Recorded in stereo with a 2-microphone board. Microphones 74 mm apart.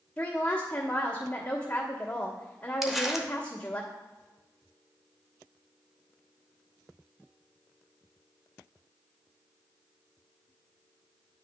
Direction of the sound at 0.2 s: 10° left (ahead or behind).